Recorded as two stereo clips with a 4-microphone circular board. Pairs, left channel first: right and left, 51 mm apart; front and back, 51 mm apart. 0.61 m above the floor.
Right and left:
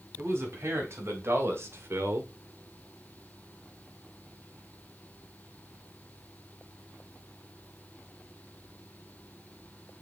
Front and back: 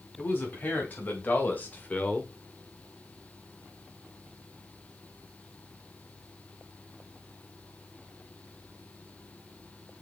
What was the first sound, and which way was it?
A man speaking, 50° left.